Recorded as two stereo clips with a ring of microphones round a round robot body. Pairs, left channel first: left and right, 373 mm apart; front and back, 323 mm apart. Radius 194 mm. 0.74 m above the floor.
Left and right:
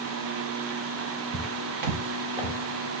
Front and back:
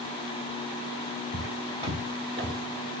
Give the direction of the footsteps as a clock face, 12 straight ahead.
2 o'clock.